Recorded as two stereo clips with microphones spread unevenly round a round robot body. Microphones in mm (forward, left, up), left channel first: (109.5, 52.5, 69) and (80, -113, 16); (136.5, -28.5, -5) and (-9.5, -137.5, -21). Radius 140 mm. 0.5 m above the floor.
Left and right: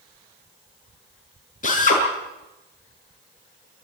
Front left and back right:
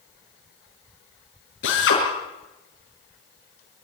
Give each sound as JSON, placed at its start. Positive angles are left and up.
{"t": 1.6, "sound": "a drill", "azimuth_deg": 40, "distance_m": 7.5}